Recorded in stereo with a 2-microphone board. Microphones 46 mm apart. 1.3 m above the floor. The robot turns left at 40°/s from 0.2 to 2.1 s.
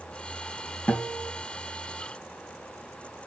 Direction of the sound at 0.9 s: 35° left (ahead or behind).